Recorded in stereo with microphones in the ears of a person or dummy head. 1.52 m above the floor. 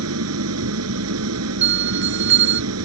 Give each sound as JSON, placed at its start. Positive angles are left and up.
{"t": 0.0, "sound": "an engine running", "side_deg": -85}
{"t": 1.6, "sound": "a bell", "side_deg": -50}